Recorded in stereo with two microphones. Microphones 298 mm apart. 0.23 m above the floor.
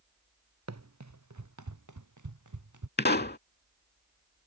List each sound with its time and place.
0.7 s running footsteps: 60° right (ahead or behind); by 2.9 s 85° right
3.0 s a pop: 35° left (ahead or behind)